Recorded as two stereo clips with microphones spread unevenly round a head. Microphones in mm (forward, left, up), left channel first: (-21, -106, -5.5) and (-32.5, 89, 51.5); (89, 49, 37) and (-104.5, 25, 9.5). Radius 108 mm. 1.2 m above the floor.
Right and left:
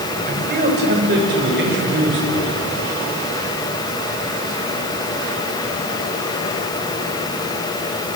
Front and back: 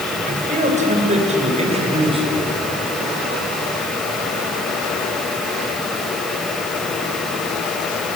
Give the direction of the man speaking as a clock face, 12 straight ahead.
7 o'clock.